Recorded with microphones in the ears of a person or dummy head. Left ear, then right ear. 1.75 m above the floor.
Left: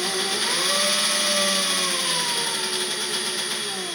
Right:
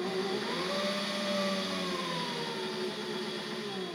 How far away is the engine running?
About 1.8 m.